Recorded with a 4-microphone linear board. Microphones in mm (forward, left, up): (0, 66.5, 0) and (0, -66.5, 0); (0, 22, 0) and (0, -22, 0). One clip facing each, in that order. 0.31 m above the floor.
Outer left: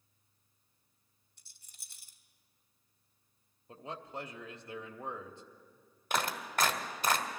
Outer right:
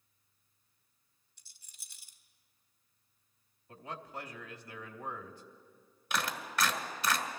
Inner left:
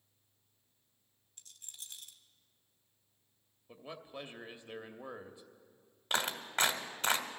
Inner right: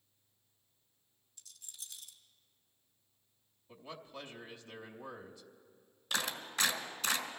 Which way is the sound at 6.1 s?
50° left (ahead or behind).